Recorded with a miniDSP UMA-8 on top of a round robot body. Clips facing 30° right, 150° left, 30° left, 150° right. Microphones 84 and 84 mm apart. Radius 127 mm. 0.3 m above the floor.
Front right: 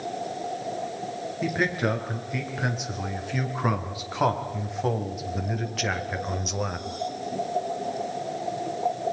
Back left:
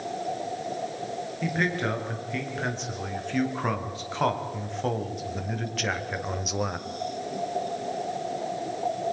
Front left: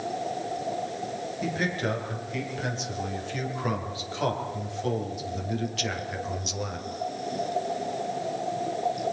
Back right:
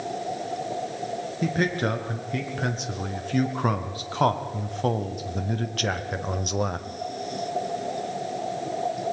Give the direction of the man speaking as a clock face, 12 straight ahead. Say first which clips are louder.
Front right 2 dB, back right 4 dB; 4 o'clock.